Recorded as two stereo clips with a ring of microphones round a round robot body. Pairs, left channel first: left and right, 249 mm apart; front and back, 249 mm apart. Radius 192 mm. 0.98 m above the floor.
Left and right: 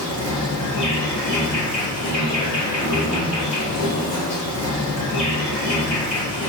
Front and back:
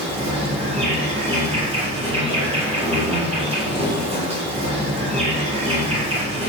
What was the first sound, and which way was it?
An insect, 115° left.